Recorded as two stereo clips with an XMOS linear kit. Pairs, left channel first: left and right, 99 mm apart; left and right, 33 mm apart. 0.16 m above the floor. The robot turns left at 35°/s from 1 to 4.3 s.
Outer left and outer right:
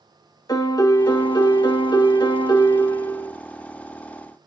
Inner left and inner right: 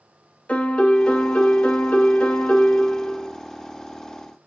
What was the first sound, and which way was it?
A piano, 120° left.